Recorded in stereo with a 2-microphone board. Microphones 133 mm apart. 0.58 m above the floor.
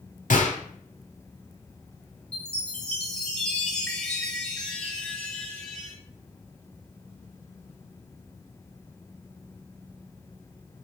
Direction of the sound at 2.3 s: 5° left (ahead or behind).